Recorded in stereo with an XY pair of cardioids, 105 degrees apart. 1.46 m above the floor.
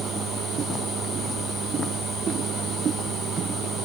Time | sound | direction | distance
0.0 | a machine running | 70° right | ?